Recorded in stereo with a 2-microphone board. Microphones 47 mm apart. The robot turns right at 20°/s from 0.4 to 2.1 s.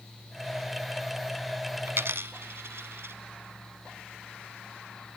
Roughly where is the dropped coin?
Right.